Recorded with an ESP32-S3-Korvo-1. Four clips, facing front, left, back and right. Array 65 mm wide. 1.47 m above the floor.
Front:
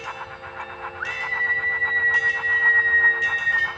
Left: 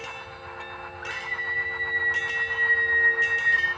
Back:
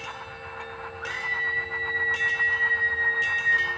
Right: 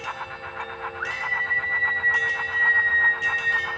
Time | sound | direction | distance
1.0 | a scream | 35° right | 4 m